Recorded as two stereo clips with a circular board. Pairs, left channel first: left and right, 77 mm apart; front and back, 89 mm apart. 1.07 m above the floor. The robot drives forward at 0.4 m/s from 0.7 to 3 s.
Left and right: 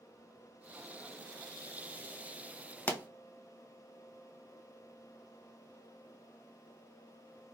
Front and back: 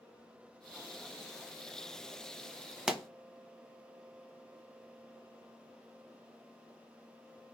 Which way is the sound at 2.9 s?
100° left.